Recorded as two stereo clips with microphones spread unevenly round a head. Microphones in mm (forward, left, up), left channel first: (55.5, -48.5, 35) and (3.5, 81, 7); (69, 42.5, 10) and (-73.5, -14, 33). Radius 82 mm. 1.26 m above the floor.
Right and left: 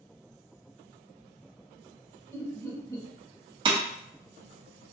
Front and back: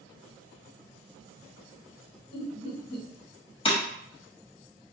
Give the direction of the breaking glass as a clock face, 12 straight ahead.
10 o'clock.